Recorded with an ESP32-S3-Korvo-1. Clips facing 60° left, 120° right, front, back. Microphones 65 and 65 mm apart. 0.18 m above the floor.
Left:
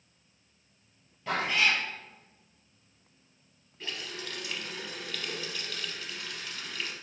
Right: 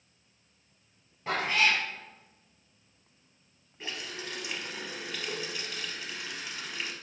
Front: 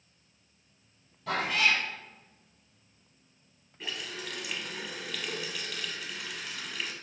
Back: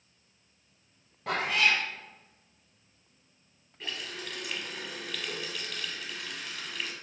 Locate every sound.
1.3 s a cat meowing: 175° left, 1.6 m
3.8 s a running tap: 85° right, 0.7 m